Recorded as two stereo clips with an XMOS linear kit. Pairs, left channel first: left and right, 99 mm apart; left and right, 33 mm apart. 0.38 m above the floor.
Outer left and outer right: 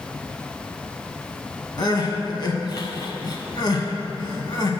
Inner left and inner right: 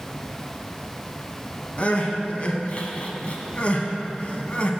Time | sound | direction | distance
1.8 | crying | 45° left (ahead or behind) | 0.6 m